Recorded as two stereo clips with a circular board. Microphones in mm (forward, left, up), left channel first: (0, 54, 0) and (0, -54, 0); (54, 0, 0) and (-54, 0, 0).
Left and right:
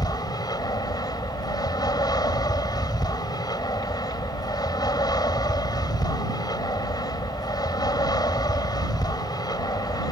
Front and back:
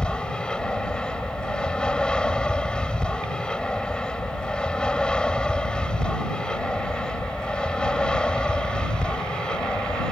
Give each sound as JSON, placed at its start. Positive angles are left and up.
{"t": 0.0, "sound": "an aircraft", "azimuth_deg": 75}